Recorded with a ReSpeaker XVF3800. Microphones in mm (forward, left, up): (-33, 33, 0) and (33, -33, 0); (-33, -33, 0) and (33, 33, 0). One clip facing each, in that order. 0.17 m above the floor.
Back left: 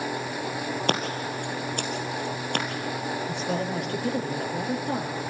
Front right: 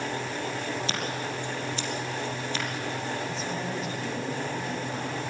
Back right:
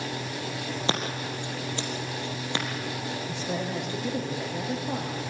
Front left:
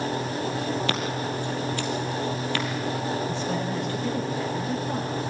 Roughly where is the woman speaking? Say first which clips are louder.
Back left 4 dB, front left 3 dB; behind left.